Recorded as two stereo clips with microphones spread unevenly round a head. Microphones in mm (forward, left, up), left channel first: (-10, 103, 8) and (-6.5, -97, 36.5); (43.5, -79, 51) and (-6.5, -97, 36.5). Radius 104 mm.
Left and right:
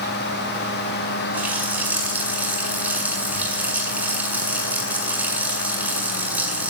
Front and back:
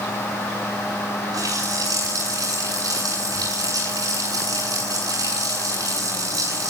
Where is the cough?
No cough in this recording.